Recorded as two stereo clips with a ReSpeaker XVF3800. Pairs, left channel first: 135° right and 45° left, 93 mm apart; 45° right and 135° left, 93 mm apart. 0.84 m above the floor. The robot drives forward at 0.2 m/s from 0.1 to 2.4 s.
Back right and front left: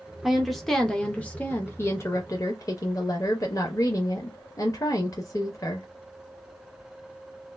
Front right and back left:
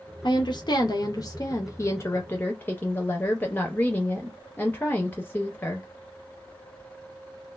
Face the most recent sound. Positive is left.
turn(degrees=-105)